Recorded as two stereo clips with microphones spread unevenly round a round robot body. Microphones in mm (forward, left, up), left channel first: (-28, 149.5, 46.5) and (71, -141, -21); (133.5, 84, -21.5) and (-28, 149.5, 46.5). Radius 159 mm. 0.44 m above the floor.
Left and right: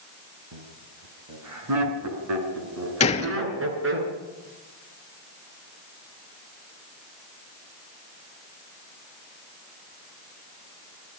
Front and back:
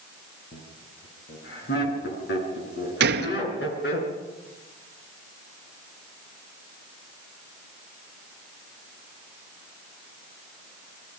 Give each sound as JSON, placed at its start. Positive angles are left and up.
{"t": 0.5, "sound": "laughter", "azimuth_deg": -55, "distance_m": 6.5}
{"t": 3.0, "sound": "a gunshot", "azimuth_deg": 175, "distance_m": 1.3}